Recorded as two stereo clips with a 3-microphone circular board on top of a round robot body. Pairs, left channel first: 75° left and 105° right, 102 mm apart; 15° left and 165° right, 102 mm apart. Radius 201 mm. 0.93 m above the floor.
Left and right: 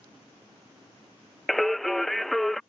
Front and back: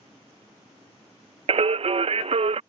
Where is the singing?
165° left.